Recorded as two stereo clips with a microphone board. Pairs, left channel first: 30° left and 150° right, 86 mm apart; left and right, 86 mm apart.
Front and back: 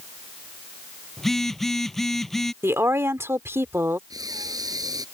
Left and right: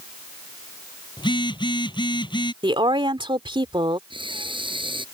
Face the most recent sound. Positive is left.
turn(degrees=-105)